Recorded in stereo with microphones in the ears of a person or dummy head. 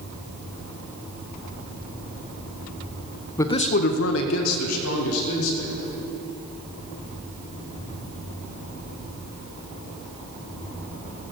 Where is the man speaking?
20° left (ahead or behind), 1.1 m; by 5.7 s 70° left (ahead or behind), 3 m.